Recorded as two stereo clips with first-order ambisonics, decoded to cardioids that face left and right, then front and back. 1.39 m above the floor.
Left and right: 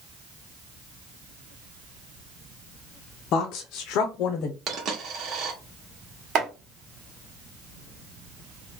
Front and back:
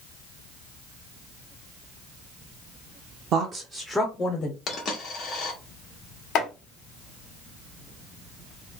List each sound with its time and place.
3.3 s a woman speaking: 130° left, 0.6 m; by 4.6 s 45° left, 0.6 m
4.7 s a dropped coin: 50° right, 1.1 m
6.3 s chopping: 40° right, 1.2 m